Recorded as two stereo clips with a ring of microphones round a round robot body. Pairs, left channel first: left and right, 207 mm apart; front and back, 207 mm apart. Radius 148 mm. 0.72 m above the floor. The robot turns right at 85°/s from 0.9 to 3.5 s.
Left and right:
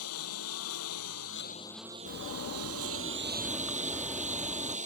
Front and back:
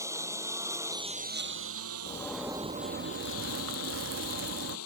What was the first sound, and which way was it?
A lawn mower, 105° left.